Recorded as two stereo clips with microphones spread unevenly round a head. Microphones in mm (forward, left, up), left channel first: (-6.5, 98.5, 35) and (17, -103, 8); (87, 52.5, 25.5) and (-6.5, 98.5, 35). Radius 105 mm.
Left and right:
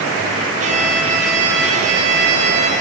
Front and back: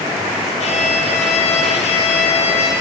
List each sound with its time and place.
0.6 s a violin: 30° right, 3.5 m